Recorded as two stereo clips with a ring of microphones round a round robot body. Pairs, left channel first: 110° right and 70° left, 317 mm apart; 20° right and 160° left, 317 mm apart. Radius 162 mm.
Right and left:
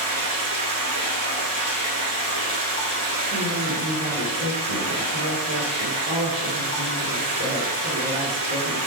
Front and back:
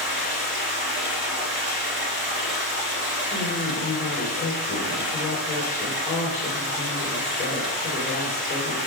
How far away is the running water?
About 3 m.